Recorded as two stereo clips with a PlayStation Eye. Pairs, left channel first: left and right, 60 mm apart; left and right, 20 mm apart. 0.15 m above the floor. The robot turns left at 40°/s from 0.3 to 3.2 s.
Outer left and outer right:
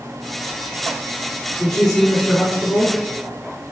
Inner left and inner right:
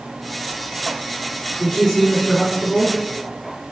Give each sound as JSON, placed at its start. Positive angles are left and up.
{"t": 1.6, "sound": "a woman speaking", "azimuth_deg": 65, "distance_m": 1.9}